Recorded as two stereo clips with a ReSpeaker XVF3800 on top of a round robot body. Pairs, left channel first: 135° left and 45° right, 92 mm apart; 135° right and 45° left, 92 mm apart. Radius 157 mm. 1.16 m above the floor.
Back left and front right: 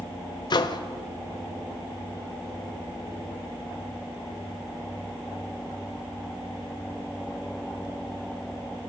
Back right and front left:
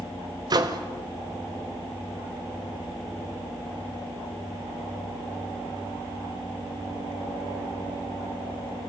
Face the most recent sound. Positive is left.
turn(degrees=90)